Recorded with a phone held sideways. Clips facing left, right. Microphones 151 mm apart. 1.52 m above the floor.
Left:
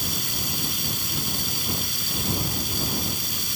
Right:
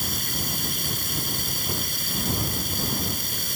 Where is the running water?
55° right (ahead or behind).